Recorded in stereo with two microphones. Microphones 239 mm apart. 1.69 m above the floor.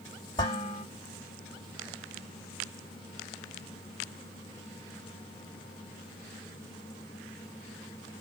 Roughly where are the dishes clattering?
Centre.